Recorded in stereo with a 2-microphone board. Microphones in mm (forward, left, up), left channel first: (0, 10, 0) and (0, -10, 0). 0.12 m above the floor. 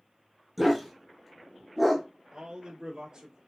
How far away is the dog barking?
About 1.2 m.